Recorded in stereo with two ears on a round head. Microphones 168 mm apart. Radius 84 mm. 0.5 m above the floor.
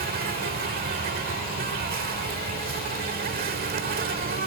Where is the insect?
50° right (ahead or behind).